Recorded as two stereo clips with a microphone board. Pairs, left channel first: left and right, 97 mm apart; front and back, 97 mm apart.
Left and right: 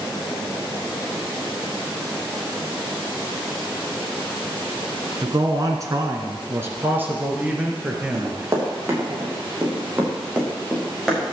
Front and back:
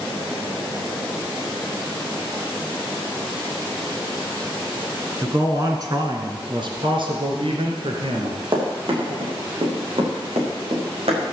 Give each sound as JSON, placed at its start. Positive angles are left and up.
{"t": 5.2, "sound": "a man speaking", "azimuth_deg": -125, "distance_m": 2.0}
{"t": 8.1, "sound": "running footsteps", "azimuth_deg": -145, "distance_m": 6.5}